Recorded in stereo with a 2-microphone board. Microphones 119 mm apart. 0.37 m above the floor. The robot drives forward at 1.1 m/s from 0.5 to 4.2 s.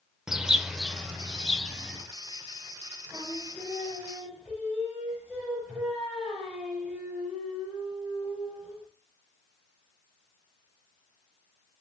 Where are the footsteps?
I don't hear footsteps.